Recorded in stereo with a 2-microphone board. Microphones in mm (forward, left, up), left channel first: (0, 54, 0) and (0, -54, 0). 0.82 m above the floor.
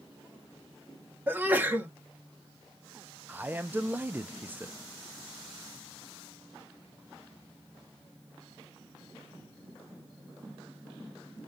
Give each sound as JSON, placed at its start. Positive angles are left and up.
{"t": 1.3, "sound": "a sneeze", "side_deg": -15, "distance_m": 1.3}
{"t": 3.3, "sound": "a man speaking", "side_deg": -15, "distance_m": 0.5}